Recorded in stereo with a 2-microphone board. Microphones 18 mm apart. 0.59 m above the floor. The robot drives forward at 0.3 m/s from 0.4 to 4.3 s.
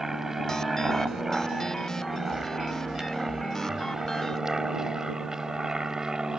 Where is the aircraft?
20° right (ahead or behind); by 6.4 s 40° right (ahead or behind).